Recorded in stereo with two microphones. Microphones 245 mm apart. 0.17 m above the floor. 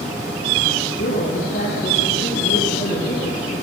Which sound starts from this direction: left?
A woman speaking, at 0.8 s.